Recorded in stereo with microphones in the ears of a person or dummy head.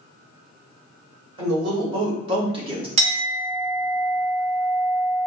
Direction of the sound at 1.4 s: 35° right (ahead or behind).